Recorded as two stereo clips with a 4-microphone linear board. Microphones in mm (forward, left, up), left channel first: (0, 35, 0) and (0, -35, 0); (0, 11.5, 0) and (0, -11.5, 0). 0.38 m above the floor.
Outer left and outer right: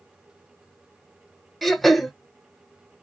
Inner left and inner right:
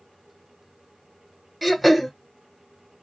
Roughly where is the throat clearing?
Centre.